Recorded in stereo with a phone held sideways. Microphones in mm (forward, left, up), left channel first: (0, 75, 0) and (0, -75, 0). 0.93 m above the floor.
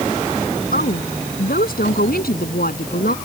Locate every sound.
0.7 s a woman speaking: 80° left; by 3.1 s 85° left